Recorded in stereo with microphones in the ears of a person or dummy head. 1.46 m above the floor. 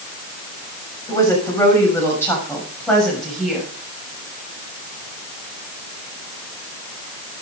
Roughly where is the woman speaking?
Centre.